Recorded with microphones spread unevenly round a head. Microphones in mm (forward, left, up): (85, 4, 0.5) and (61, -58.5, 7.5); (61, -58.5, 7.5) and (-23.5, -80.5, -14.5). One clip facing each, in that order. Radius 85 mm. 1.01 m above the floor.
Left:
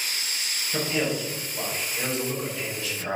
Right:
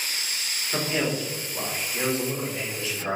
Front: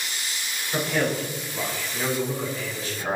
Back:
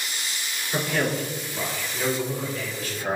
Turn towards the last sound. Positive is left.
turn(degrees=-50)